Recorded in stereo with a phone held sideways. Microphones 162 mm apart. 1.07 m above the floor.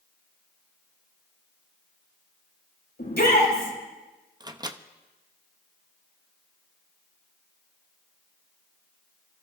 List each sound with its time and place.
3.0 s a shout: 85° left, 5.5 m
4.4 s a microwave: 25° right (ahead or behind), 0.6 m